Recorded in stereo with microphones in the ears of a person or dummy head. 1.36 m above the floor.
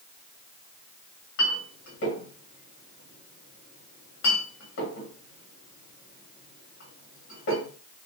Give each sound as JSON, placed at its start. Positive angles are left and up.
{"t": 1.4, "sound": "a clink", "side_deg": 65, "distance_m": 1.6}